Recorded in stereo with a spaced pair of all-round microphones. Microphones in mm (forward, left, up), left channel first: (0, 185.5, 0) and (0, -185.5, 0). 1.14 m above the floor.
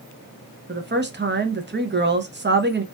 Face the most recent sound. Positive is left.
turn(degrees=-30)  # may be behind; listen again after turning